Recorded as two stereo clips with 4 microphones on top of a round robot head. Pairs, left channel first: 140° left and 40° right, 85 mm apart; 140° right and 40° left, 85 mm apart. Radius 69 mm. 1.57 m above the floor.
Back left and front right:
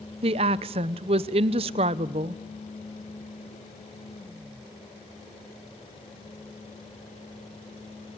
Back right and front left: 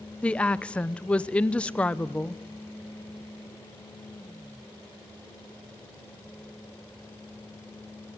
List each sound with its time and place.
0.2 s a woman speaking: 60° right, 0.8 m